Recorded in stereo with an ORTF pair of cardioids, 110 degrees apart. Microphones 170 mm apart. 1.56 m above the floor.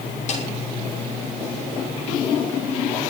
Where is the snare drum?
45° left, 6 m.